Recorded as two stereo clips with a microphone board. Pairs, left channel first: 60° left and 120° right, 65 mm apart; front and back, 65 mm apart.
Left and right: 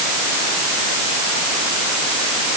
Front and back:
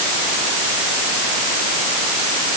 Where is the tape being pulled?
I don't hear tape being pulled.